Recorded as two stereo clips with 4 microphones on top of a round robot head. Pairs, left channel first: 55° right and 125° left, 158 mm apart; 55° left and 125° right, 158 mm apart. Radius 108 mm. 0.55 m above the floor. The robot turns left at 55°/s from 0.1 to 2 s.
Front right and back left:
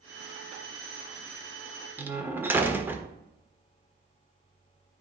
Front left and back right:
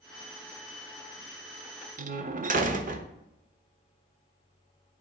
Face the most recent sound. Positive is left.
turn(degrees=-155)